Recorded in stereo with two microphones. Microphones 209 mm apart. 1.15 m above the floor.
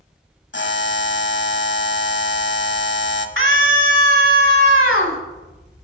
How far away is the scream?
About 2 m.